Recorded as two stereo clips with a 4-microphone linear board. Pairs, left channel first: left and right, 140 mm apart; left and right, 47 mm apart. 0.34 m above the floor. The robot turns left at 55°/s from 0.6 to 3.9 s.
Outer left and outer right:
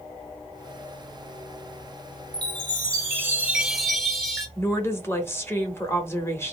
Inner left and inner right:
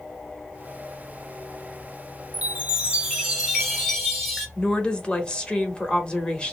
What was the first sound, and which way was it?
A chime, 100° right.